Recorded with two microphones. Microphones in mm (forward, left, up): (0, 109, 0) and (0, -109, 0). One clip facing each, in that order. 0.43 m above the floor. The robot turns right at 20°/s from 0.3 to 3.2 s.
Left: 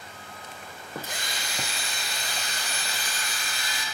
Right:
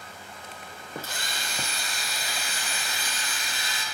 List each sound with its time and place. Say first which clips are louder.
1.0 s a drill: left 1 dB; 165° left, 5 m; by 3.8 s 155° right, 5 m